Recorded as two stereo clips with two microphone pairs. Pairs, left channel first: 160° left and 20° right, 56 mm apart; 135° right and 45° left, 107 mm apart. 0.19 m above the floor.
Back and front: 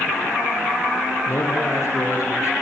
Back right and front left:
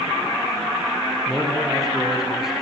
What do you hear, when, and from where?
1.3 s a man speaking: 130° left, 5.5 m